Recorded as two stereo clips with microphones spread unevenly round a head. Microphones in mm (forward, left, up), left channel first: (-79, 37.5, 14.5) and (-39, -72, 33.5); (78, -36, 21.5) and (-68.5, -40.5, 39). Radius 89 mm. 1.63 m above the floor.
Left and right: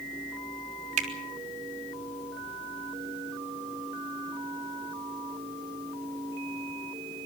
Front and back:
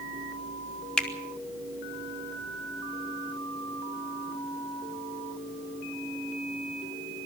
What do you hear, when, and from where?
1.0 s a finger snap: 85° right, 3 m